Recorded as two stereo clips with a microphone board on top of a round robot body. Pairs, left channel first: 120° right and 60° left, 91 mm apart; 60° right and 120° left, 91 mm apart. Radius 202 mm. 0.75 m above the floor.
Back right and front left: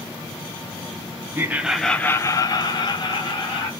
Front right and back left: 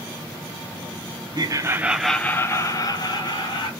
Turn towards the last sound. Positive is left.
turn(degrees=-95)